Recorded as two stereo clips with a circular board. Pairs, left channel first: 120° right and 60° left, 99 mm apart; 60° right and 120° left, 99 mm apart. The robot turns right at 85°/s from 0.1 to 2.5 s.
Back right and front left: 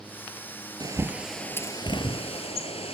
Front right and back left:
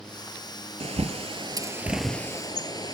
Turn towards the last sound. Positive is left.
turn(degrees=-110)